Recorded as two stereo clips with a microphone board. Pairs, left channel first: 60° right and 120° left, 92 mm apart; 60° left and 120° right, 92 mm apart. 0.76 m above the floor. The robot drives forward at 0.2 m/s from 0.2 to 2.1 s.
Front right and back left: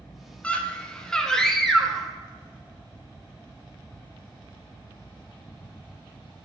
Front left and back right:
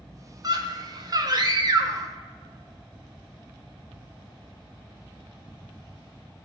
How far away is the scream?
About 0.7 m.